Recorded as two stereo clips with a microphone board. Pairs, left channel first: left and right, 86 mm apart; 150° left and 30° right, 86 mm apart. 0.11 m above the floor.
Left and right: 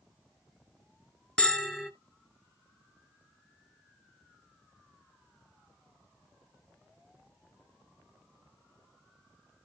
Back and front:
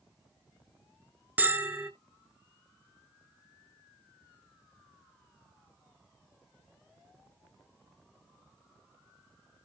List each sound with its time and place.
1.4 s a bell: 20° left, 0.7 m